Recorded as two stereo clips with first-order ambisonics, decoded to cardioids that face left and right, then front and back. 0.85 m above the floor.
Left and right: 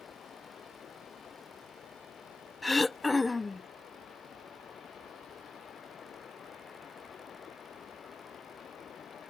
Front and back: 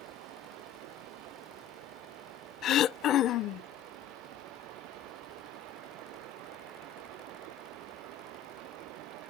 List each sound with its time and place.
0.0 s running water: 150° left
2.6 s throat clearing: 15° left